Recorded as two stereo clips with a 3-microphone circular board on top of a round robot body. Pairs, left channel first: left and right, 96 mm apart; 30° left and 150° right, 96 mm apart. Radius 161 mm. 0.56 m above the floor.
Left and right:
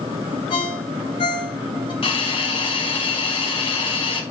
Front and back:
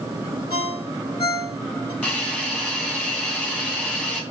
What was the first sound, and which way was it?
A ringtone, 70° left.